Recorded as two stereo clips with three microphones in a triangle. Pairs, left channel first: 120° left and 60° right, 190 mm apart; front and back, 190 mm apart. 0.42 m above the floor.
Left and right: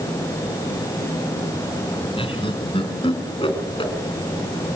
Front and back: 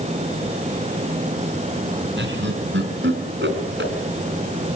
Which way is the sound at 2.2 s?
Straight behind.